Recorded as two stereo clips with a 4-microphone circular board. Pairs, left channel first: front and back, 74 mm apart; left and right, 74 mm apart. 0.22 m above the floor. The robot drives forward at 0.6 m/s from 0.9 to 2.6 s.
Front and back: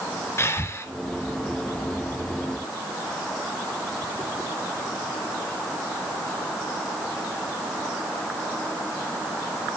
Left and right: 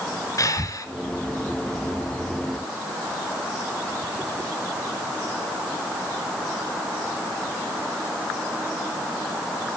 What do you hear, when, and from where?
0.4 s breathing: 55° left, 2 m